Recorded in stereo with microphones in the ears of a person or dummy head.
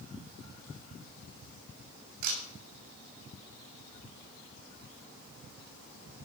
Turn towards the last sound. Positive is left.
turn(degrees=-75)  # may be behind; listen again after turning